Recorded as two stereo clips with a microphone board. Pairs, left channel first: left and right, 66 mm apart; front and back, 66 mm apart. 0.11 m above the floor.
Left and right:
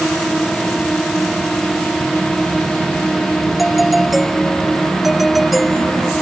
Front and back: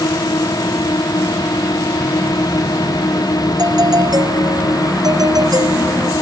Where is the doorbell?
Straight behind.